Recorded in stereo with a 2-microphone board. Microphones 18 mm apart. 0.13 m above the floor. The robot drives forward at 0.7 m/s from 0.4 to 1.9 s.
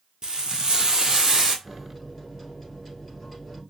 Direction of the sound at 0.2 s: 45° right (ahead or behind).